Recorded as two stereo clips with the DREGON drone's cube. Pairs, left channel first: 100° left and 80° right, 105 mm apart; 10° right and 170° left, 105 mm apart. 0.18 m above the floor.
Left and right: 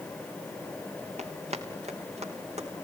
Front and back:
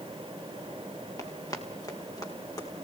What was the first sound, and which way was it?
Running footsteps, 70° right.